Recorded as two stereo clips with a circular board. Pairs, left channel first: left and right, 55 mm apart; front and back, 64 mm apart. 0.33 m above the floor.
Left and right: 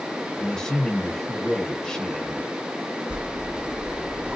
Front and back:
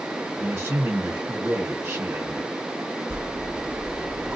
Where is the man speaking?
160° left, 1.2 m.